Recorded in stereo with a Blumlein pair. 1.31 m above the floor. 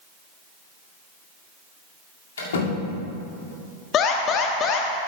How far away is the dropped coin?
No dropped coin in this recording.